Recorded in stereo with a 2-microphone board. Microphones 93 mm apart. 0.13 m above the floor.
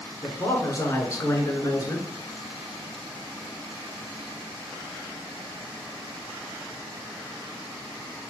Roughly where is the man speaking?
Left.